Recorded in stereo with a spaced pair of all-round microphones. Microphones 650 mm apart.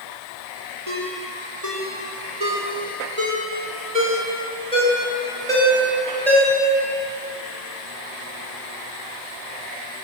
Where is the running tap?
No running tap in this recording.